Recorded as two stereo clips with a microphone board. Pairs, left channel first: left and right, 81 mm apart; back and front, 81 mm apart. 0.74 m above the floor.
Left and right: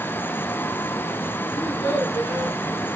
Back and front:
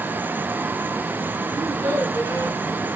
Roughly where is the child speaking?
Ahead left.